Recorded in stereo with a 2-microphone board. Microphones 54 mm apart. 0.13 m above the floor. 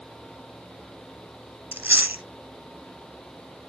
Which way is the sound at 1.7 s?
30° right (ahead or behind).